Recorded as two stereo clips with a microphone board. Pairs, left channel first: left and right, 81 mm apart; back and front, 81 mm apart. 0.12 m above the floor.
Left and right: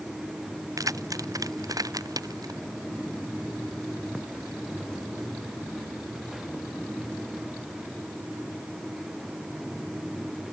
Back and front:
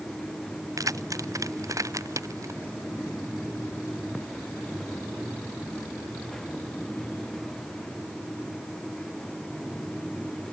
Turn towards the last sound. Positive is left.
turn(degrees=-50)